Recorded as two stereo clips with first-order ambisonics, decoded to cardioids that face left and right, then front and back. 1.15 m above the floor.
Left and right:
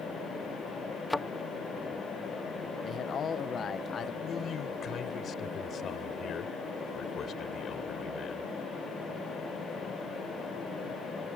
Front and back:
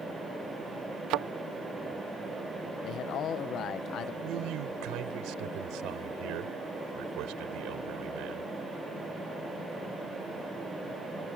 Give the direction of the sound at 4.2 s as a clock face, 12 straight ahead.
7 o'clock.